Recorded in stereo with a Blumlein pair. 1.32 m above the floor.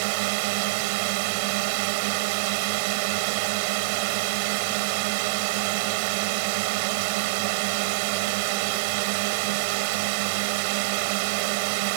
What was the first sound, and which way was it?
A drone, 45° right.